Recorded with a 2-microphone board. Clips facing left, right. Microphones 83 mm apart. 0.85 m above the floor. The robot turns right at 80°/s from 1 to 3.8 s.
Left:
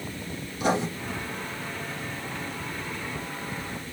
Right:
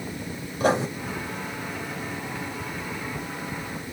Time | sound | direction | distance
0.6 | writing | 40° right (ahead or behind) | 2.5 m